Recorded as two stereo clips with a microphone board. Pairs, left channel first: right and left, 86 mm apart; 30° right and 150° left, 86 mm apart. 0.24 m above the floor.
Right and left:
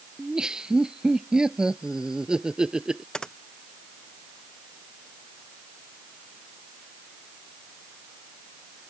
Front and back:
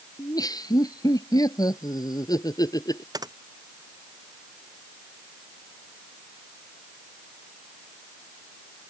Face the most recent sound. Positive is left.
turn(degrees=-170)